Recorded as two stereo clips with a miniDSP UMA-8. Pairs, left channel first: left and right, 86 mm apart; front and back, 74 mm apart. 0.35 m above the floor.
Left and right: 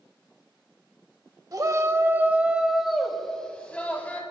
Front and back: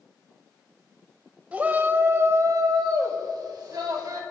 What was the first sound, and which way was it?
A shout, 115° right.